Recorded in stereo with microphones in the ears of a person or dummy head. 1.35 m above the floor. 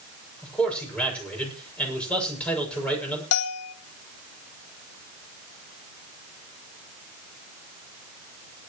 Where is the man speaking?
10° left (ahead or behind), 7 m.